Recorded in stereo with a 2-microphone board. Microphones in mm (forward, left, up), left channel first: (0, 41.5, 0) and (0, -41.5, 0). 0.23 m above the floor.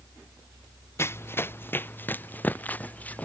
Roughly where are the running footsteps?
Left.